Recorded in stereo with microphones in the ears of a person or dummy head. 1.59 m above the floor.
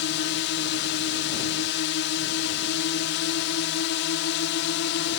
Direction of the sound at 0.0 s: 55° left (ahead or behind).